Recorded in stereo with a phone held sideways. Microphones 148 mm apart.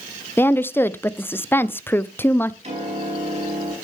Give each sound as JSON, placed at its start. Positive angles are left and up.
{"t": 0.4, "sound": "a woman speaking", "side_deg": 15, "distance_m": 0.6}
{"t": 2.6, "sound": "a piano", "side_deg": -45, "distance_m": 6.0}